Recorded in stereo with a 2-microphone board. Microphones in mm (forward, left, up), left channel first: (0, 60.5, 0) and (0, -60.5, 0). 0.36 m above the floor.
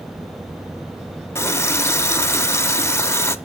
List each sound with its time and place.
1.4 s a running tap: 20° left (ahead or behind), 0.5 m